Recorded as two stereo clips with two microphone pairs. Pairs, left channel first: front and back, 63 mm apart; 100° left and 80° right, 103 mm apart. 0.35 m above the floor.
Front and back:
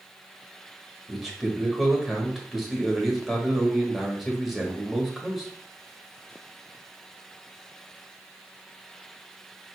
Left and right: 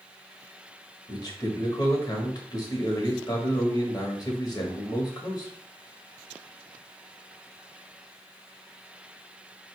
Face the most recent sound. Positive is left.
turn(degrees=95)